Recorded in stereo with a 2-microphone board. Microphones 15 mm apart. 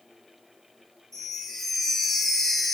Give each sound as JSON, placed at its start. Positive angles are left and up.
{"t": 1.1, "sound": "a chime", "side_deg": 25, "distance_m": 1.0}